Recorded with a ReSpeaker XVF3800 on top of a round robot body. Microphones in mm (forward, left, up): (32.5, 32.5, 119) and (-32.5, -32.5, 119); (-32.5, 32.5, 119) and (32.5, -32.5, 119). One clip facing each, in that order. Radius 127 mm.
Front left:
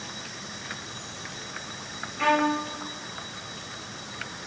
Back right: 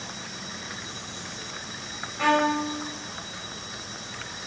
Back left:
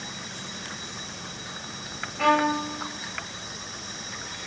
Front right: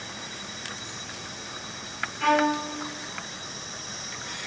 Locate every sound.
2.2 s a violin: 150° left, 2.5 m